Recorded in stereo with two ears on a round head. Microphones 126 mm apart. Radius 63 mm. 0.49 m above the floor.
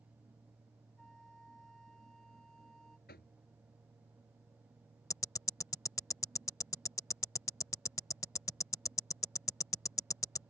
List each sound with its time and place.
1.0 s a flute: 5° left (ahead or behind)
3.1 s knocking: 75° left (ahead or behind)
5.1 s ticking: 20° left (ahead or behind)